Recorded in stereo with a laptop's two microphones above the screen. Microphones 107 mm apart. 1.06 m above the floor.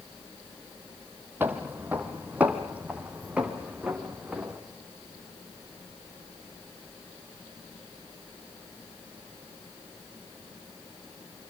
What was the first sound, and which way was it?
Footsteps, 20° right (ahead or behind).